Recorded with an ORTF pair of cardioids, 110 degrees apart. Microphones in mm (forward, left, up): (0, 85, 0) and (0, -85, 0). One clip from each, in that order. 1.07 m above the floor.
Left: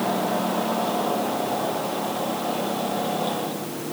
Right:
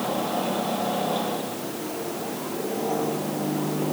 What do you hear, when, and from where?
Only background noise.